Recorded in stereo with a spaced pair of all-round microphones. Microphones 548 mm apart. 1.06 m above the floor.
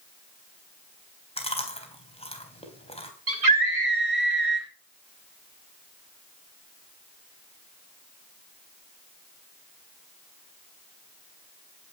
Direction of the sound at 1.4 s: 10° left (ahead or behind).